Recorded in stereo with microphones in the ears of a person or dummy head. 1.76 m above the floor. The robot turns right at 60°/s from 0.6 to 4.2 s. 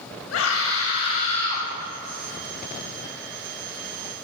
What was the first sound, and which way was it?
A scream, 105° left.